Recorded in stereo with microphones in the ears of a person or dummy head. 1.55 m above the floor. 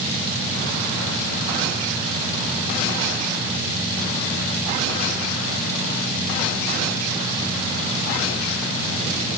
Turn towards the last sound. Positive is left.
No sound to turn to.